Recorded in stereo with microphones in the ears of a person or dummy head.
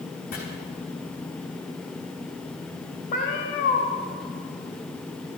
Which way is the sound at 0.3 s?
45° left (ahead or behind).